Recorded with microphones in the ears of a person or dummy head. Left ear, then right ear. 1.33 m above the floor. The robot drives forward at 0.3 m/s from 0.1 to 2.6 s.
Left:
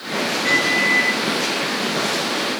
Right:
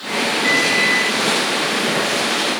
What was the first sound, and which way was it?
A microwave, 55° right (ahead or behind).